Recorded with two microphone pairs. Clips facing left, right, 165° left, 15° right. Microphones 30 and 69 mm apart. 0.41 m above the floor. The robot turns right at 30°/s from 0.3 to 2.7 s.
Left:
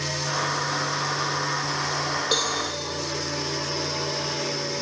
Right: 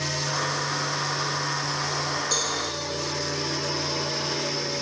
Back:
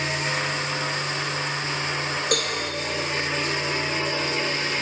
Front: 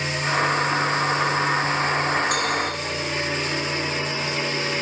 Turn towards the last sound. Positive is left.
turn(degrees=145)